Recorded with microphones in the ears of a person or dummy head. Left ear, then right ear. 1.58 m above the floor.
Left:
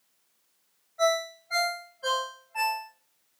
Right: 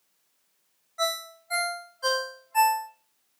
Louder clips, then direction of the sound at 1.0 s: Left 4 dB; 45° right (ahead or behind).